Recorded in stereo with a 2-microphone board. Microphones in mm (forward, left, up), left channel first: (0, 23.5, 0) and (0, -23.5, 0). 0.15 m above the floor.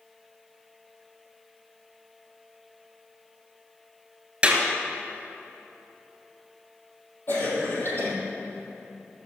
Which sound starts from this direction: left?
A cough, at 7.3 s.